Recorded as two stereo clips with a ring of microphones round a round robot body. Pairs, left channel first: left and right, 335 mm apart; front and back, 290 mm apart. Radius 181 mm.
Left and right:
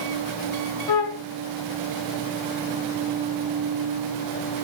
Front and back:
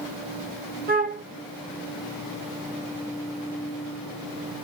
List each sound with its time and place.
0.9 s a flute: 115° left, 0.9 m